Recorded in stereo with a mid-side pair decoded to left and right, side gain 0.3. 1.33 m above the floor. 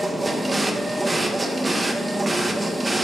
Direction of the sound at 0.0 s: 30° right.